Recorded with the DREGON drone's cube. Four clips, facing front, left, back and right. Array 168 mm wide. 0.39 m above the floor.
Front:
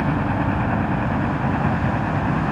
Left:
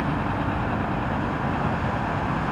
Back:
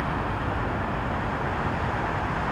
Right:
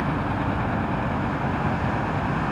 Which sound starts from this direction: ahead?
A helicopter, at 0.0 s.